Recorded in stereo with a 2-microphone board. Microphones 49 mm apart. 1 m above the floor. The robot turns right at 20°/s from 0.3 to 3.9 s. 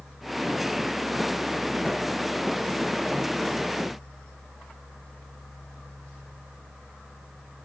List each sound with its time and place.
Only background noise.